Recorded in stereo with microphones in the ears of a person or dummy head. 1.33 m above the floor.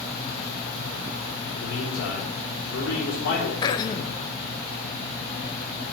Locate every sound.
1.6 s a man speaking: 65° left (ahead or behind), 3.5 m
3.6 s throat clearing: 30° left (ahead or behind), 0.6 m